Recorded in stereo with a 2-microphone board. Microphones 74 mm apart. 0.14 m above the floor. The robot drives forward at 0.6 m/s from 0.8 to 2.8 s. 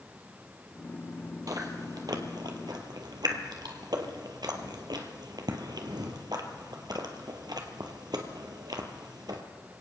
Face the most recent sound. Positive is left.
turn(degrees=-70)  # may be behind; listen again after turning